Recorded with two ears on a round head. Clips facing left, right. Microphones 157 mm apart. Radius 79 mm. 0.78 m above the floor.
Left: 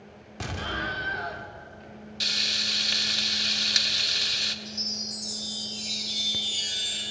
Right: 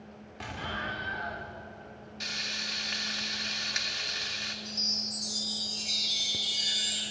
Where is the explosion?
55° left (ahead or behind), 0.7 m.